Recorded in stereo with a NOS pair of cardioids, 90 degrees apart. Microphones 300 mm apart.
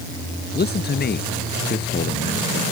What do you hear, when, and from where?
0.5 s a man speaking: 35° left